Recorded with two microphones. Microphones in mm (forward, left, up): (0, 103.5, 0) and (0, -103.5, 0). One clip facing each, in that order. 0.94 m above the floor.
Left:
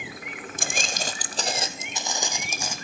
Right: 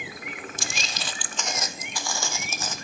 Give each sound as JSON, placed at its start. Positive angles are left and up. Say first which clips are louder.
{"t": 0.6, "sound": "footsteps", "louder": "left 4 dB", "side_deg": 55, "distance_m": 1.6}